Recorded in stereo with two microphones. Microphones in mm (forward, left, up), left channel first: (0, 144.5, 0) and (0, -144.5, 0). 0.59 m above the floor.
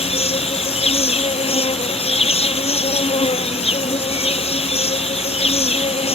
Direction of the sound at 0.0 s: 20° left (ahead or behind).